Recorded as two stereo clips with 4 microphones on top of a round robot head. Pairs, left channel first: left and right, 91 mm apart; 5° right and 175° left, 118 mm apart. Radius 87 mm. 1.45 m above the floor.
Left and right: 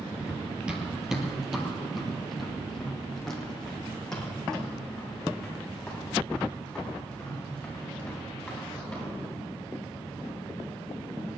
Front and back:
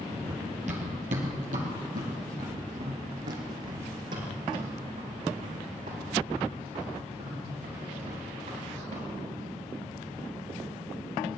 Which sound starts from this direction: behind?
Running footsteps, at 0.2 s.